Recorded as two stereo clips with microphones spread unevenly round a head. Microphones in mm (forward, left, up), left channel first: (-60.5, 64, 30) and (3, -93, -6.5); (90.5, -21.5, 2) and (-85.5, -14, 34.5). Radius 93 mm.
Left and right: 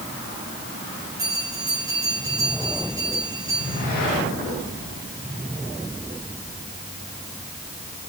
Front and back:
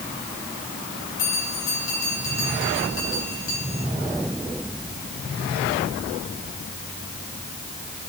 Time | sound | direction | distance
1.2 | a bell | 5° left | 8.5 m